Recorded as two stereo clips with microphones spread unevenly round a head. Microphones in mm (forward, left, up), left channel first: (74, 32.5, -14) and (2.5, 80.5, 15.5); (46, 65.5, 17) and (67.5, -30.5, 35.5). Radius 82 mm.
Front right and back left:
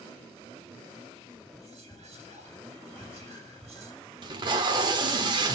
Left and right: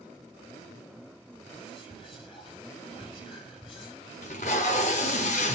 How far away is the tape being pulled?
About 0.9 m.